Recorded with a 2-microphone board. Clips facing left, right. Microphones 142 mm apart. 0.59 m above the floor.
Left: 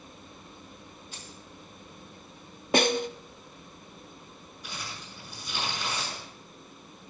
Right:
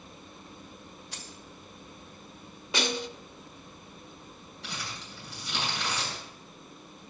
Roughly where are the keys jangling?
Right.